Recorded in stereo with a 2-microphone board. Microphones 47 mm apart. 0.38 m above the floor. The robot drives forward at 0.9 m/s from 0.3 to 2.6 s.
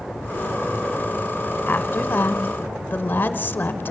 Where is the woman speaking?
40° left (ahead or behind), 1.3 m.